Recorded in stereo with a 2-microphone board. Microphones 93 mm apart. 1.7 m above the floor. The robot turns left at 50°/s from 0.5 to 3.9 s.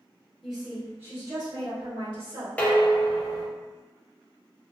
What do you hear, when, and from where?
0.4 s a woman speaking: 5° right, 1.9 m; by 2.5 s 100° right, 1.9 m
2.6 s dishes clattering: 155° left, 0.8 m; by 3.5 s 115° left, 0.8 m